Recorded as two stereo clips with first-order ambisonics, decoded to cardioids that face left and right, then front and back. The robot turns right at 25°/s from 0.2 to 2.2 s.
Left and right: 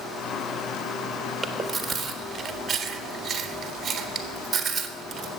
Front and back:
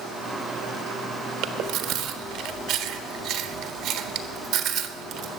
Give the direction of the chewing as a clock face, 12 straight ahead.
6 o'clock.